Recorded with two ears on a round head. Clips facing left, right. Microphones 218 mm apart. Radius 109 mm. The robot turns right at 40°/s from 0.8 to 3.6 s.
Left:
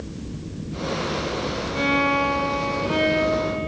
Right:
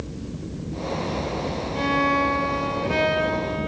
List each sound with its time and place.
1.8 s a violin: 170° left, 3.5 m; by 3.7 s 120° right, 3.5 m